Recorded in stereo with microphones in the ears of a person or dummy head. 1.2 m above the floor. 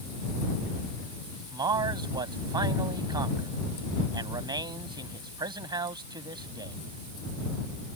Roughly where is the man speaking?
Right.